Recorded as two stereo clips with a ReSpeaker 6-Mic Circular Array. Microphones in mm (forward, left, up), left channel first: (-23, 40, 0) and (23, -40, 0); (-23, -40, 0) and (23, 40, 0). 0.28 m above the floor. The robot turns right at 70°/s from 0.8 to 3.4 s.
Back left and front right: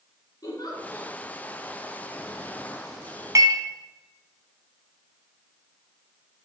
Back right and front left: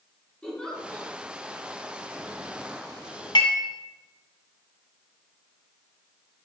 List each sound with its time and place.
0.4 s a giggle: 160° left, 3 m; by 1.1 s 175° right, 3 m
3.4 s dishes clattering: 105° right, 1.5 m